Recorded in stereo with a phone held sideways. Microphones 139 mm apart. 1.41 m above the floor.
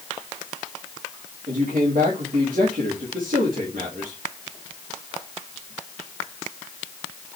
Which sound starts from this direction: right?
A man speaking, at 1.5 s.